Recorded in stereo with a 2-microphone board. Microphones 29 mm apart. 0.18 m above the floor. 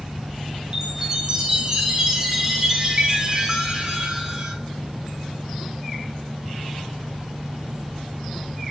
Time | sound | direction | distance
0.7 | a chime | 25° right (ahead or behind) | 0.9 m